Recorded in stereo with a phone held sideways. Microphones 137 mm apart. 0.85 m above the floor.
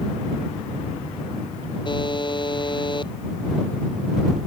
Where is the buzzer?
35° left (ahead or behind).